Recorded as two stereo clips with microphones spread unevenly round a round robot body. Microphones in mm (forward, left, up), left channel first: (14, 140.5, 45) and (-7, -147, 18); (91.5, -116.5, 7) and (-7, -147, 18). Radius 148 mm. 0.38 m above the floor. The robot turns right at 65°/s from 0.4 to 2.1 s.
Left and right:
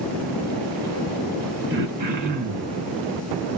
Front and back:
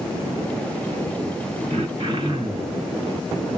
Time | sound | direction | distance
1.7 | throat clearing | 145° right | 3.5 m